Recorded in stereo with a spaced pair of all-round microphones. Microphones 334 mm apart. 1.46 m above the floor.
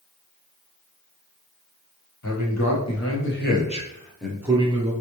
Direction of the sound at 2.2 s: 65° left (ahead or behind).